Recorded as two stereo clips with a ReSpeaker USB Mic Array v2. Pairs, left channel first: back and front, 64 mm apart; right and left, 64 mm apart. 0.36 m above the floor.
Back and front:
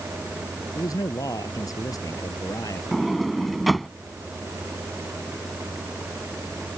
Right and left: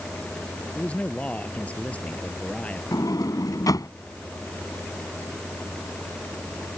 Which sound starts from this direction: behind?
A man speaking, at 0.8 s.